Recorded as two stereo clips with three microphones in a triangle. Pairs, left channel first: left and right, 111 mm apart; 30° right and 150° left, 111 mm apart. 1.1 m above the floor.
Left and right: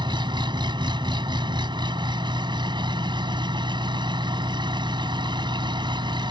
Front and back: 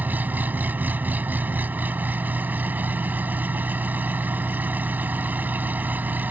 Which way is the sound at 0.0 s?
135° right.